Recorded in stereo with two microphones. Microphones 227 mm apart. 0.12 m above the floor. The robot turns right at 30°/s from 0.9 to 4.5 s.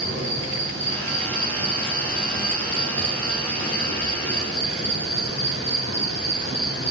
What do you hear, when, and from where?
0.0 s an insect: 50° right, 3.5 m; by 6.9 s 60° left, 3.5 m